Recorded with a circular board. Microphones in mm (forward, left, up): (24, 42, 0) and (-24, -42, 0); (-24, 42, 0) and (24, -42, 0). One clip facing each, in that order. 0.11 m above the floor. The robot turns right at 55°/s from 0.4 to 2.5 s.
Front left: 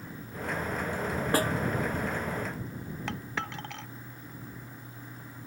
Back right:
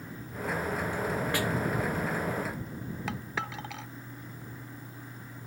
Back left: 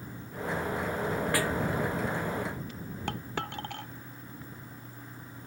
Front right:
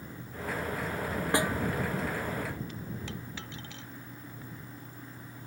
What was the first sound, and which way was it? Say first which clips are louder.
A snare drum: front left 7 dB, front right 4 dB; 5° left.